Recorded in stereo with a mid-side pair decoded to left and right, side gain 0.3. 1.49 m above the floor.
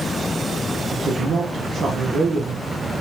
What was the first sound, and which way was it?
A woman speaking, 60° right.